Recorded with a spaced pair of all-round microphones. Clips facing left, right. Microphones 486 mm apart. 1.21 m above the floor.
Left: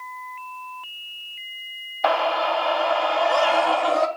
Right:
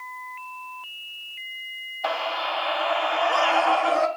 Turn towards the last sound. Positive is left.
turn(degrees=55)  # may be behind; listen again after turning